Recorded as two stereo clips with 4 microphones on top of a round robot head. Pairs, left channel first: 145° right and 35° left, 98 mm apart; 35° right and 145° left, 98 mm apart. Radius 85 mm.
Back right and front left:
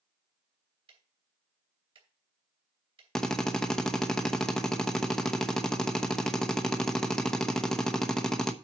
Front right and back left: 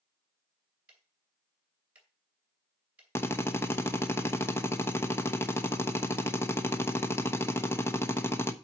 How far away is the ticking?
About 2.5 m.